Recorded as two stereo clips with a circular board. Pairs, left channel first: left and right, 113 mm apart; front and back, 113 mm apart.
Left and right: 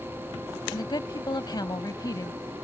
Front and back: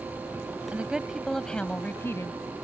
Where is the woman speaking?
110° left; by 2.3 s 50° left.